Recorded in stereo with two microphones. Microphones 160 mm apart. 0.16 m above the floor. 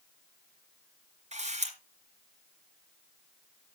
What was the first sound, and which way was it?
A camera shutter, 45° right (ahead or behind).